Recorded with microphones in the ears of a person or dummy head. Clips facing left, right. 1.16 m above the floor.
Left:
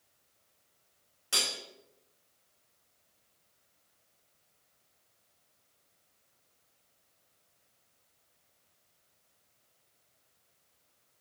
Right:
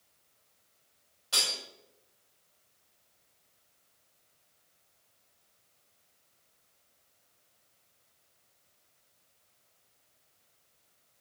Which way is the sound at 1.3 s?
35° left (ahead or behind).